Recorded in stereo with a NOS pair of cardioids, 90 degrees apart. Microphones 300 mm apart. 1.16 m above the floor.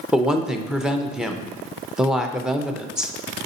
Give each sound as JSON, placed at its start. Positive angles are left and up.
{"t": 0.1, "sound": "a woman speaking", "azimuth_deg": 0, "distance_m": 0.6}